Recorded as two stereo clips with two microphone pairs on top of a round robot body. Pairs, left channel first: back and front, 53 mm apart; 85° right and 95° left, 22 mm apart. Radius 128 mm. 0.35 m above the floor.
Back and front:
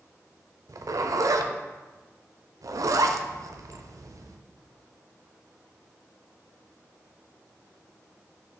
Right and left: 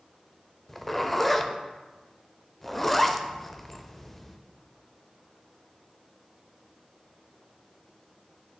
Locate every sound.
0.7 s a zipper: 5° left, 0.6 m